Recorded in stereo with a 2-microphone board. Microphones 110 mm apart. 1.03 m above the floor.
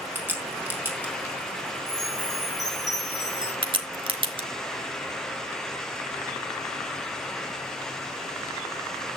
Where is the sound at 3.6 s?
45° right (ahead or behind), 1.5 m.